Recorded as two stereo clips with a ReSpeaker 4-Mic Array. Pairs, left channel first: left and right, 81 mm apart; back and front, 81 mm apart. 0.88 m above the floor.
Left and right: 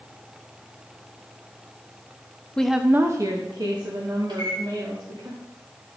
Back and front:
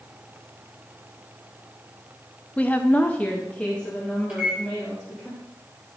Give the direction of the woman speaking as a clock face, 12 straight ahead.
7 o'clock.